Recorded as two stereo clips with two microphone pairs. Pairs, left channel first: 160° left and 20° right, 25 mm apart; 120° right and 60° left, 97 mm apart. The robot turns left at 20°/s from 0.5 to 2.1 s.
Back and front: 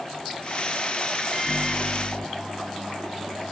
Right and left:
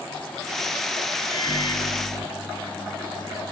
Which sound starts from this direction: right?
A microwave, at 1.3 s.